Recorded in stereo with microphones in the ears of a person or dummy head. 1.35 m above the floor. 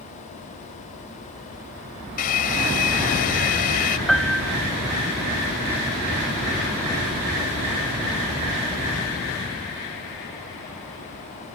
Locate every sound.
2.2 s a hair dryer: 45° left (ahead or behind)
4.1 s a piano: centre (ahead or behind)